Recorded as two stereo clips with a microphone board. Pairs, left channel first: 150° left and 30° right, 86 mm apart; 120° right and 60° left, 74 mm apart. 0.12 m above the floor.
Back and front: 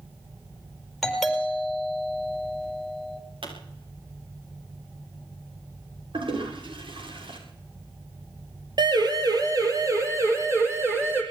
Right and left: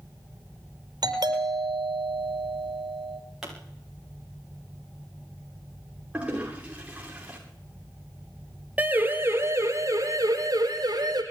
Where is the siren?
5° right, 3 m; by 11.2 s 35° left, 4.5 m.